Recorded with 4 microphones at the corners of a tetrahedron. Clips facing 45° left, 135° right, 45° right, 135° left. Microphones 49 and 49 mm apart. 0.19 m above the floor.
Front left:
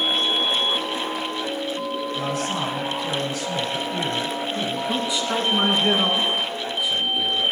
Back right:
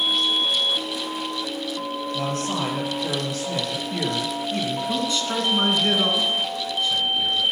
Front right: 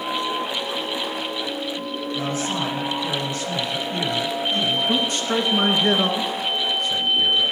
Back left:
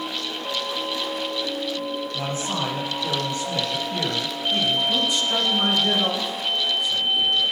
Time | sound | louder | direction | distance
2.1 | a man speaking | back right 2 dB, front right 5 dB | 165° right | 5 m
4.9 | a man speaking | front left 1 dB, front right 1 dB | 30° right | 1.9 m